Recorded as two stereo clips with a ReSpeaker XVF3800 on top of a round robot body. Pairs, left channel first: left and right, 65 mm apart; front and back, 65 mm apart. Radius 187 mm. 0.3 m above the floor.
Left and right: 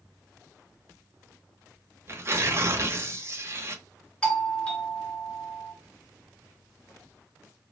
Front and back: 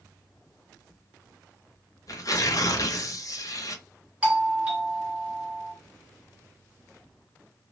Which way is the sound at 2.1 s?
35° right.